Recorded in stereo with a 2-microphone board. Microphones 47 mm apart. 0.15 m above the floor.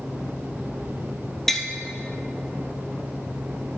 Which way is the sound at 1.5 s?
5° left (ahead or behind).